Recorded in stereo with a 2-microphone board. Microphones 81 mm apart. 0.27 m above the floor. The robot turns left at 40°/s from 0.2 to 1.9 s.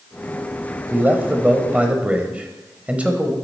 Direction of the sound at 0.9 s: 25° right (ahead or behind).